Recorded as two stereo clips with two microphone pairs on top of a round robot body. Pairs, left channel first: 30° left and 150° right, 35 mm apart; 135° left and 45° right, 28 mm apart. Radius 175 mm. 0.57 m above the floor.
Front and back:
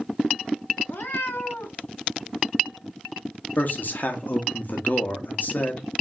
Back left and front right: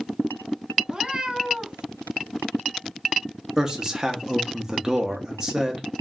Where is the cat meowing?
15° left, 0.8 m.